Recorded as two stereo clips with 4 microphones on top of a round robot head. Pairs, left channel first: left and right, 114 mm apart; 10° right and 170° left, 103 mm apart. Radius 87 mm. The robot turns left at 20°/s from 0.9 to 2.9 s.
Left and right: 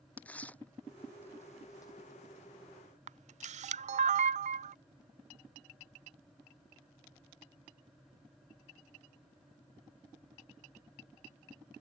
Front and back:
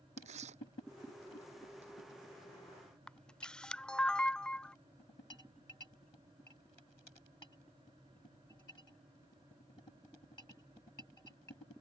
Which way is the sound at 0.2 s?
165° left.